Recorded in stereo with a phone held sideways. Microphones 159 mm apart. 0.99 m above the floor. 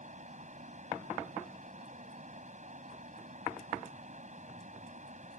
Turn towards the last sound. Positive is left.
turn(degrees=-50)  # may be behind; listen again after turning